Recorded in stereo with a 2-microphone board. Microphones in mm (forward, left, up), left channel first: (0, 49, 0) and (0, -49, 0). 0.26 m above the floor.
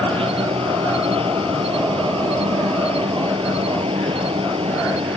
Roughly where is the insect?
Right.